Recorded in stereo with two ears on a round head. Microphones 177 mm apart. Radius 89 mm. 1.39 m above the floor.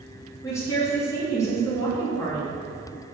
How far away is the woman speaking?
About 3 m.